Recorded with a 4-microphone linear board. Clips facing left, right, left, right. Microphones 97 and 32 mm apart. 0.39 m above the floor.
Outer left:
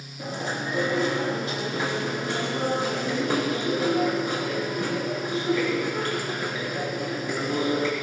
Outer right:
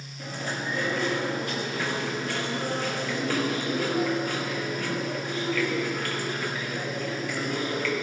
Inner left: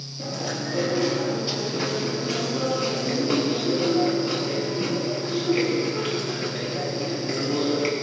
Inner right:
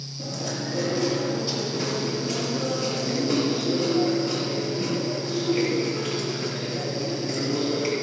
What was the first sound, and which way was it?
Chewing, 25° left (ahead or behind).